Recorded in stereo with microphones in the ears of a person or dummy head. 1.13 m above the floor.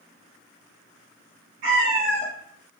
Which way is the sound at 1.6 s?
45° right (ahead or behind).